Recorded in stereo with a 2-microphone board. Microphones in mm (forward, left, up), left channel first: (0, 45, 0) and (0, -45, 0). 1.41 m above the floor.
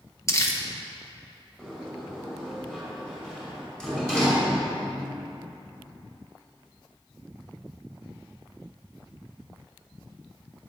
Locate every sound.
0.3 s crumpling: 30° left (ahead or behind), 1.7 m
1.6 s a sliding door: 5° left (ahead or behind), 4.5 m